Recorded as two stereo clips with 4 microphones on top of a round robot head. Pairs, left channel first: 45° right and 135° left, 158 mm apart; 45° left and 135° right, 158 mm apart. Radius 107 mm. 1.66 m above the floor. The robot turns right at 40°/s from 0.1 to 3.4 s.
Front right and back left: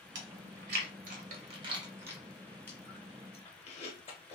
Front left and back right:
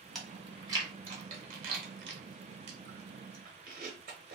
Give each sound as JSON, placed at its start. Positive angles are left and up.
{"t": 0.1, "sound": "chewing", "azimuth_deg": 135, "distance_m": 1.1}